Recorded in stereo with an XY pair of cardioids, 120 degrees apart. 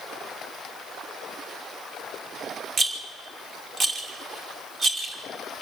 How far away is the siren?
No siren in this recording.